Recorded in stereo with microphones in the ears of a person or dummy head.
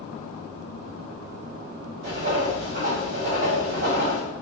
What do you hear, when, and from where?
2.0 s writing: 40° right (ahead or behind), 1.5 m